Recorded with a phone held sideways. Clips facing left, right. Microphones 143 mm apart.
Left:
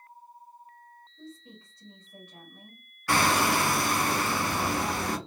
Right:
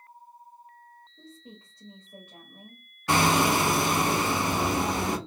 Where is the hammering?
20° right (ahead or behind), 0.8 m.